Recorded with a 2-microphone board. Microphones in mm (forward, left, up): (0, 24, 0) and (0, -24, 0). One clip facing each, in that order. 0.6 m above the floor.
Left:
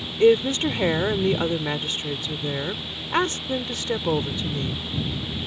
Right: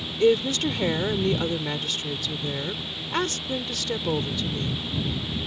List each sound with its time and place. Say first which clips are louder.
0.2 s a woman speaking: left 3 dB; 25° left (ahead or behind)